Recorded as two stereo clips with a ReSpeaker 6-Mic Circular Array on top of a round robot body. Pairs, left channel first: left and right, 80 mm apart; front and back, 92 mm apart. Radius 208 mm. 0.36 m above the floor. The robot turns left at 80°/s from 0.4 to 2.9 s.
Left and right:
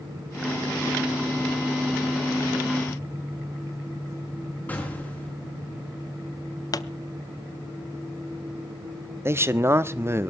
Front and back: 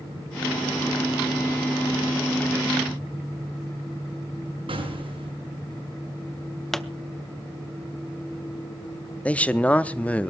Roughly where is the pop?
Left.